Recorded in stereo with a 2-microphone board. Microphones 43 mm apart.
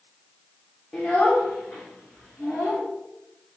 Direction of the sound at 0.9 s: 15° left (ahead or behind).